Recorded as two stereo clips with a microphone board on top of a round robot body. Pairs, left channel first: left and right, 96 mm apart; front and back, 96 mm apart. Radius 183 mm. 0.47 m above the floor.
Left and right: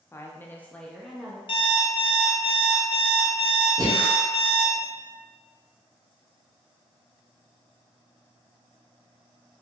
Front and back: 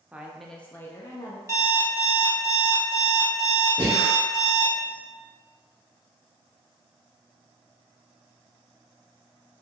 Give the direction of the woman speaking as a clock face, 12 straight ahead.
8 o'clock.